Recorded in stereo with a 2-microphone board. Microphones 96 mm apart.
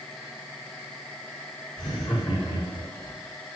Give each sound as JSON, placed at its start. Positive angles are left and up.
{"t": 1.8, "sound": "laughter", "side_deg": 65, "distance_m": 7.0}